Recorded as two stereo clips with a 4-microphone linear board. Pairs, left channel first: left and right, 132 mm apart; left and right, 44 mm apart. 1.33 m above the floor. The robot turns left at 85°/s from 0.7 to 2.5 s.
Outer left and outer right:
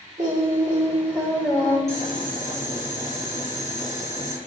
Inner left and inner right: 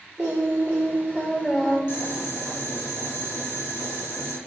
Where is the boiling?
125° left, 1.7 m; by 4.4 s 70° left, 1.7 m.